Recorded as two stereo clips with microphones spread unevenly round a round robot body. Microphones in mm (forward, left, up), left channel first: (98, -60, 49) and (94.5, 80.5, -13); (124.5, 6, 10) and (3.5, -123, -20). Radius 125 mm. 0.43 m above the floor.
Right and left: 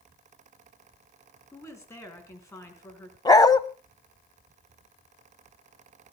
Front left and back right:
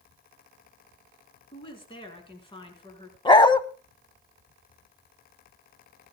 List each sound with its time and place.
1.5 s a woman speaking: 15° right, 4.5 m
3.2 s a dog barking: 20° right, 1.1 m